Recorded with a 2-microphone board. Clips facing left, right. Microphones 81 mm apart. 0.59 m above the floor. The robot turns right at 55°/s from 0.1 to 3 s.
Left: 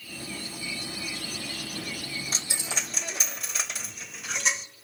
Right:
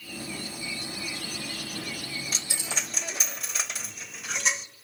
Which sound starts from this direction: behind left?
A dropped coin, at 2.3 s.